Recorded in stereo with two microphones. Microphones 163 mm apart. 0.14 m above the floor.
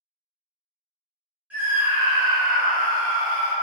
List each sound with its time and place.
1.5 s a scream: 10° right (ahead or behind), 1.7 m; by 3.5 s 45° right (ahead or behind), 1.9 m